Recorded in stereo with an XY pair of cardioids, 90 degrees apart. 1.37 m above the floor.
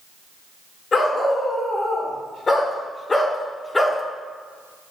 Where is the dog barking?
50° left, 2.5 m; by 4.0 s 25° left, 1.2 m.